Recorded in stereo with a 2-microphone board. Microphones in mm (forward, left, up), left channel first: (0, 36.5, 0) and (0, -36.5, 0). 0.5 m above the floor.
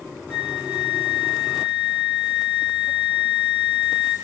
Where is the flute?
5° right (ahead or behind), 3 m.